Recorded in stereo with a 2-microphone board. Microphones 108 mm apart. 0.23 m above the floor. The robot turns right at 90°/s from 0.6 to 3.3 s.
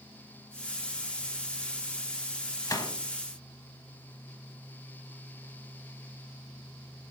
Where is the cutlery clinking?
No cutlery clinking in this recording.